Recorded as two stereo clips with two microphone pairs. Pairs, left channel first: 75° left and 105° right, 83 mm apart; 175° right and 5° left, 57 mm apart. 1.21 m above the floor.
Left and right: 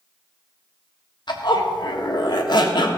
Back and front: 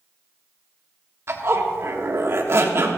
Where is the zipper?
50° left, 1.5 m.